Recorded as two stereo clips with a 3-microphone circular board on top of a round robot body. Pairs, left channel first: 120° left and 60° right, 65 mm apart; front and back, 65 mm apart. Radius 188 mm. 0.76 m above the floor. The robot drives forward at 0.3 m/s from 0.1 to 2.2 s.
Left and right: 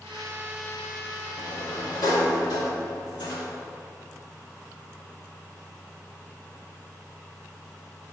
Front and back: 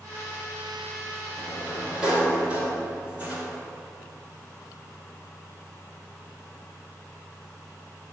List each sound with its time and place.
1.4 s a sliding door: 95° left, 1.2 m; by 3.5 s 105° left, 1.2 m